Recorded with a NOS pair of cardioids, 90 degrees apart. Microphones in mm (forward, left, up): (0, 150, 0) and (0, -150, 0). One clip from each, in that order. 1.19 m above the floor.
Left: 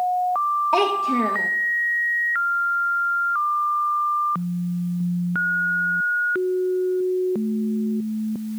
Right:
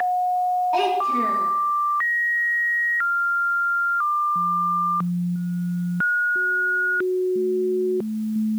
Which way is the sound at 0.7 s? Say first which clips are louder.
Left 1 dB; 55° left.